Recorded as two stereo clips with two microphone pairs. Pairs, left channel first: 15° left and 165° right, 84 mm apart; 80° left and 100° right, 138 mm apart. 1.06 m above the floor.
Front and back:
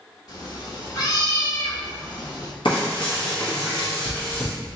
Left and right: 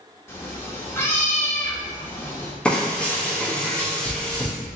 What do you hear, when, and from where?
0.3 s a cat meowing: 10° left, 0.8 m
2.6 s frying: 5° right, 1.1 m